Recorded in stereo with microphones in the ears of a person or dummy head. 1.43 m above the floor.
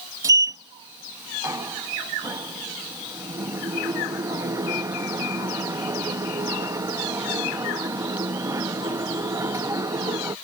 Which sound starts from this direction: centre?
A sliding door, at 0.2 s.